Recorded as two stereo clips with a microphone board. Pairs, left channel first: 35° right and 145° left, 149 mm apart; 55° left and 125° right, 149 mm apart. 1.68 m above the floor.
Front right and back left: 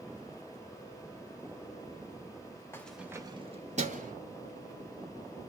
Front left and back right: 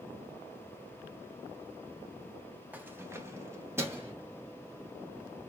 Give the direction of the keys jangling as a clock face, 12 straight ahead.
2 o'clock.